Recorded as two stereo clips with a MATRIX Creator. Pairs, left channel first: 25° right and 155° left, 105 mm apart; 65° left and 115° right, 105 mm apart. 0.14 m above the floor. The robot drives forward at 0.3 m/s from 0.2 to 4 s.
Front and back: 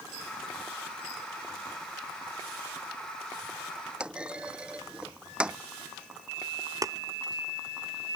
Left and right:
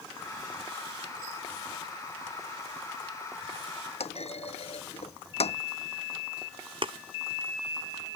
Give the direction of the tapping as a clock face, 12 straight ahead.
5 o'clock.